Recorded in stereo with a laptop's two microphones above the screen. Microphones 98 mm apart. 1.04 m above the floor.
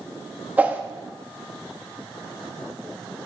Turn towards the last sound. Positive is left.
turn(degrees=-15)  # may be behind; listen again after turning